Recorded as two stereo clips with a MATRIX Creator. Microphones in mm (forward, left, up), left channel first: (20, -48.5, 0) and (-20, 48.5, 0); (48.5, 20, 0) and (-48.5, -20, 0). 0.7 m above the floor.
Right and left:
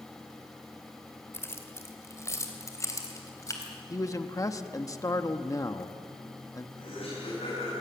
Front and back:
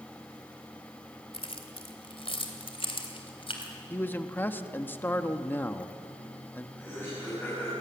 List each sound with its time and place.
1.3 s keys jangling: straight ahead, 2 m; by 3.7 s 10° right, 3.5 m
3.9 s a man speaking: 35° right, 1.0 m
6.8 s laughter: 50° right, 5.5 m